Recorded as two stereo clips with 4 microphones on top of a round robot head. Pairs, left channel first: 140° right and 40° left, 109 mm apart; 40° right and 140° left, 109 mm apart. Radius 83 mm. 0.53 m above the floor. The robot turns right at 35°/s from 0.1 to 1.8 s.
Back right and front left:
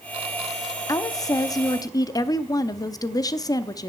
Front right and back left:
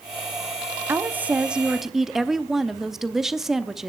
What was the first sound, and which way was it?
A woman speaking, 165° right.